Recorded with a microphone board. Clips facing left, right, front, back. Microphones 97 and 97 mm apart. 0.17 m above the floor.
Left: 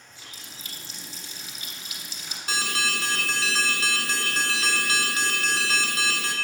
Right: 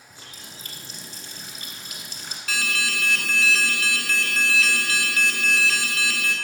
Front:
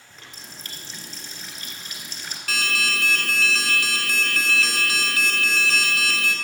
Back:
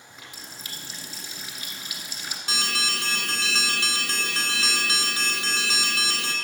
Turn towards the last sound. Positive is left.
turn(degrees=130)